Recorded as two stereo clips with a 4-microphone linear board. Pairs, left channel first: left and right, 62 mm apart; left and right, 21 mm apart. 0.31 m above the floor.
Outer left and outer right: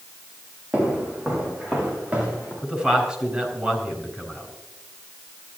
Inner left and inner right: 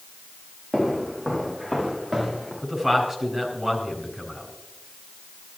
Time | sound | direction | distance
0.7 | footsteps | 25° right (ahead or behind) | 6 m
2.6 | a man speaking | 15° right (ahead or behind) | 4 m